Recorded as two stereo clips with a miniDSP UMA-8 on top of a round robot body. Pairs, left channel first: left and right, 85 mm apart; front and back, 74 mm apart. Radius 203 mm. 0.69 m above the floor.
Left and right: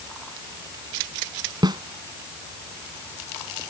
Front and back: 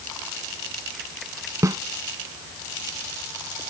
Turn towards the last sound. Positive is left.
turn(degrees=-130)